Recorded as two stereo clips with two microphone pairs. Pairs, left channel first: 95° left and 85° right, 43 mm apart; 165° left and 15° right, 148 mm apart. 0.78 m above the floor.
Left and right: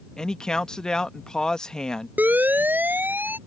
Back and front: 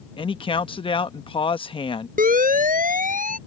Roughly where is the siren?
Ahead right.